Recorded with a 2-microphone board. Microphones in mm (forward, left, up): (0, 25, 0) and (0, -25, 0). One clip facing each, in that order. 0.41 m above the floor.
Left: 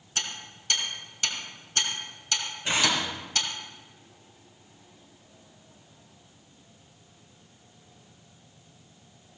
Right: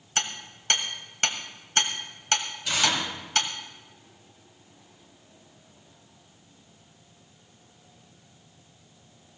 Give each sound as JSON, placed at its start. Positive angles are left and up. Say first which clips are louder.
{"t": 0.2, "sound": "hammering", "louder": "right 3 dB", "side_deg": -55, "distance_m": 1.6}
{"t": 2.6, "sound": "tearing paper", "louder": "even", "side_deg": 30, "distance_m": 3.0}